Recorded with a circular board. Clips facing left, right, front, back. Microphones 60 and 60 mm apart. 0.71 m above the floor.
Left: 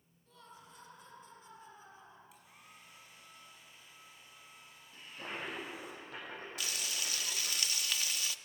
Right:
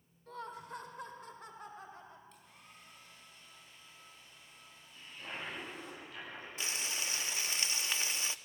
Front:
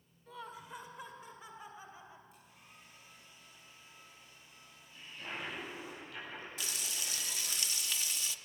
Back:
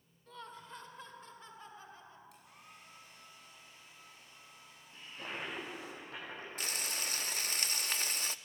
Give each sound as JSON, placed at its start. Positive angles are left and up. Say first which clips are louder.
{"t": 0.3, "sound": "laughter", "louder": "right 12 dB, front 2 dB", "azimuth_deg": -80, "distance_m": 2.0}
{"t": 2.3, "sound": "a hair dryer", "louder": "even, back 2 dB", "azimuth_deg": 170, "distance_m": 5.5}
{"t": 4.9, "sound": "a toilet flushing", "louder": "left 2 dB, even", "azimuth_deg": 130, "distance_m": 8.5}
{"t": 6.6, "sound": "frying", "louder": "right 3 dB, back 5 dB", "azimuth_deg": -145, "distance_m": 0.5}